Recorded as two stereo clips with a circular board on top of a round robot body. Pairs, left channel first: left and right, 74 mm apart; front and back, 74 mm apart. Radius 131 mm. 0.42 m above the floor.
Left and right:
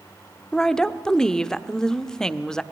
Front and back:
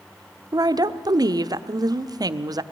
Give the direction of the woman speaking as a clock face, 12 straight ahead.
6 o'clock.